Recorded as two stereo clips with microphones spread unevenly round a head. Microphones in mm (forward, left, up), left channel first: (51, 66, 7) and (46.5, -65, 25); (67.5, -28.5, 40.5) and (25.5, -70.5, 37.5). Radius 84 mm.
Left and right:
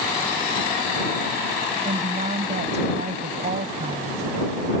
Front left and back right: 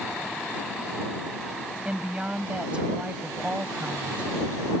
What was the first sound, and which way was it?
A woman speaking, 65° right.